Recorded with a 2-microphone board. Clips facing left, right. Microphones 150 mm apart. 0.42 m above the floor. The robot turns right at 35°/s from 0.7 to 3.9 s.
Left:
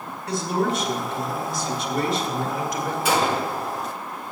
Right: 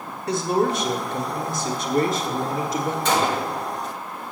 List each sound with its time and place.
0.3 s a man speaking: 115° right, 1.2 m; by 3.0 s 35° right, 1.2 m
3.0 s a gunshot: 10° left (ahead or behind), 1.6 m; by 3.6 s centre (ahead or behind), 1.6 m